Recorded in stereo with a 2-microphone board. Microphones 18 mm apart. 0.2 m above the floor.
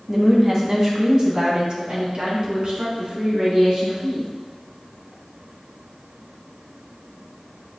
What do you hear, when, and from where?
0.1 s a woman speaking: 20° right (ahead or behind), 1.8 m; by 4.3 s 55° right (ahead or behind), 3 m